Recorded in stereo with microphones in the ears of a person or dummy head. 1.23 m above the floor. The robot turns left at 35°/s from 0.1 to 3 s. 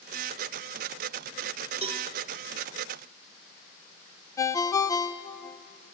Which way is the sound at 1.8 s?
35° right (ahead or behind).